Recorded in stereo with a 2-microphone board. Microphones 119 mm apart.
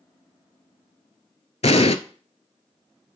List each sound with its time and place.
1.6 s an explosion: 65° left (ahead or behind), 0.5 m